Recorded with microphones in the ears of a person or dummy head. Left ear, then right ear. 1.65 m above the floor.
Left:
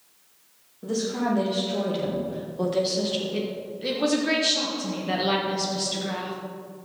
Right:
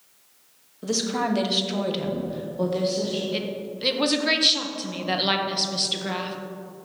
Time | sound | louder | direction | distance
0.8 | a woman speaking | right 2 dB | 80° right | 2.5 m
3.3 | a woman speaking | right 1 dB | 35° right (ahead or behind) | 1.5 m